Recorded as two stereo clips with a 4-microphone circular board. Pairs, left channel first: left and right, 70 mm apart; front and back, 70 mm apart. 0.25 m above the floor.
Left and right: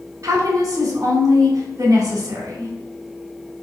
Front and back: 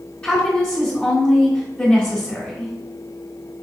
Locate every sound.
0.2 s a woman speaking: 70° right, 2.5 m